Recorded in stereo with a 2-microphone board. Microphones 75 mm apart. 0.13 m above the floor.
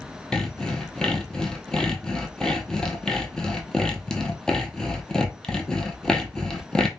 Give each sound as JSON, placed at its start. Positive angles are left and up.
{"t": 0.3, "sound": "sawing", "side_deg": 10, "distance_m": 0.6}